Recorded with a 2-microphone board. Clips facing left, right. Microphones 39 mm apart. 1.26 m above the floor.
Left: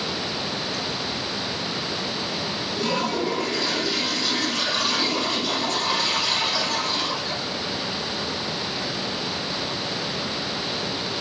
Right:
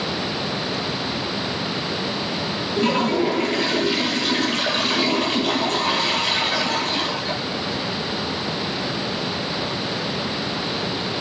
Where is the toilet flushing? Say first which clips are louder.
Right 6 dB; 50° right (ahead or behind), 4 m.